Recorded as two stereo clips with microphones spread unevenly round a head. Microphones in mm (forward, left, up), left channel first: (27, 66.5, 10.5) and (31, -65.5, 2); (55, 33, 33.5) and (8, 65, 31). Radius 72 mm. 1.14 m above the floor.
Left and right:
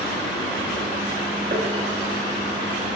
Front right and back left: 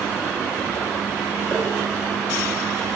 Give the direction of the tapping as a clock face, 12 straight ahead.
4 o'clock.